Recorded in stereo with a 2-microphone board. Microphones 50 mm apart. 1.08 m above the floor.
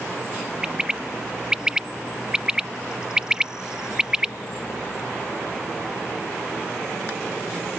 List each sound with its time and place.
0.6 s a bird: 15° right (ahead or behind)